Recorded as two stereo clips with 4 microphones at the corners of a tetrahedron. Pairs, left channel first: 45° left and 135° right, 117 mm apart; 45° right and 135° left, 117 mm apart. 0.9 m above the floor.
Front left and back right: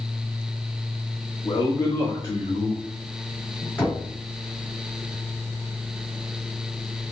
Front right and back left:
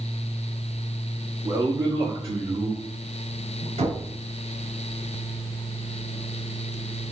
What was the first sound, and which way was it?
A man speaking, 80° left.